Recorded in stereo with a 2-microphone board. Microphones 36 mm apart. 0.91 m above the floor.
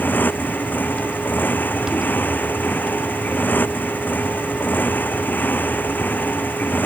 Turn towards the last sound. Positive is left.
turn(degrees=65)  # may be behind; listen again after turning